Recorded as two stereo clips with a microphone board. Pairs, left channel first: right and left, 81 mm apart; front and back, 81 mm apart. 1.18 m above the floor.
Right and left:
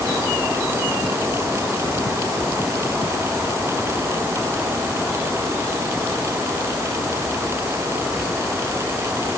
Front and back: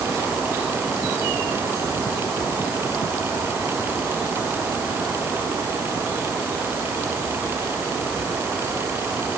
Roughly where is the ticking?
I don't hear ticking.